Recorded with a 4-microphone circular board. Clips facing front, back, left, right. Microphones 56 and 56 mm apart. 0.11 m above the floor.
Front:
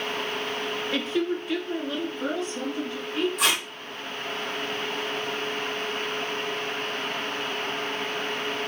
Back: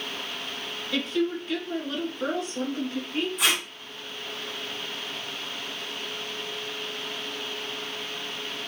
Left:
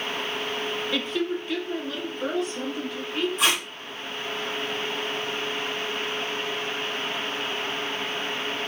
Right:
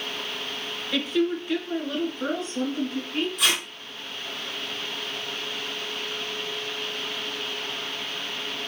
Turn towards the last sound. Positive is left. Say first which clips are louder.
# back 2 dB, left 1 dB
turn(degrees=35)